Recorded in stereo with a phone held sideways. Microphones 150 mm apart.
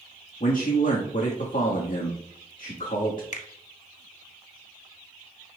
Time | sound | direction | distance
0.4 | a man speaking | 65° left (ahead or behind) | 1.4 m
3.3 | a finger snap | 50° left (ahead or behind) | 1.1 m